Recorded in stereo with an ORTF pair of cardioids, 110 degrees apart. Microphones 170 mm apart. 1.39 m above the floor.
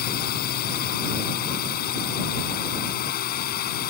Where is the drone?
65° left.